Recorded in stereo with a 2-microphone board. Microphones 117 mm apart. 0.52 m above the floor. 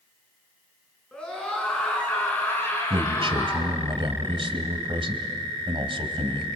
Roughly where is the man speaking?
Right.